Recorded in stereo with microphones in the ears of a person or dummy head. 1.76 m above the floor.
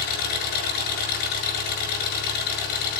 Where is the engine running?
60° left (ahead or behind), 7 m.